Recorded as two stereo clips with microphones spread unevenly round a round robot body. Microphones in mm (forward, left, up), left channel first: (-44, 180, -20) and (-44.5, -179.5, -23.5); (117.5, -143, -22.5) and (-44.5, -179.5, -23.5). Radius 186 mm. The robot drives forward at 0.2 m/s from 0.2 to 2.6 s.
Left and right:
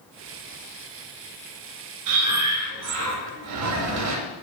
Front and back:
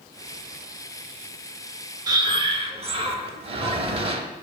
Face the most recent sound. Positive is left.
turn(degrees=-120)